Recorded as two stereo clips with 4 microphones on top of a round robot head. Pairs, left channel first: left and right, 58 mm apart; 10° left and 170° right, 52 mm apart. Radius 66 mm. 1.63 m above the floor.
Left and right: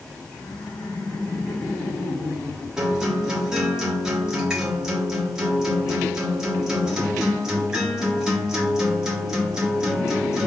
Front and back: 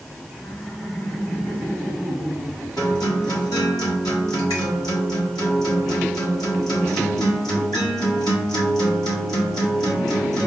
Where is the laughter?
75° left, 1.6 m; by 2.7 s 100° left, 4 m.